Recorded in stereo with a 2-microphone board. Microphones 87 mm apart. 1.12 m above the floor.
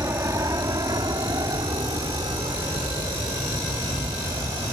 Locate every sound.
0.0 s an aircraft: 35° right (ahead or behind); by 4.7 s 75° right (ahead or behind)